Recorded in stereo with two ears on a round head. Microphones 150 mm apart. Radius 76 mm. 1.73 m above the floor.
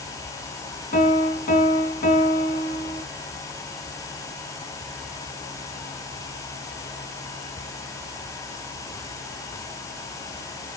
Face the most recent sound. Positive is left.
turn(degrees=45)  # may be behind; listen again after turning